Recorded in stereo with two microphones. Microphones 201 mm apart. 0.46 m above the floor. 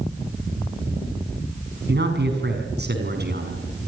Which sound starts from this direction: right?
A man speaking, at 1.9 s.